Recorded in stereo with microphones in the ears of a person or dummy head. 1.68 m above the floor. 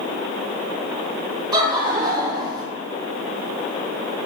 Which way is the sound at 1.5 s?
25° right (ahead or behind).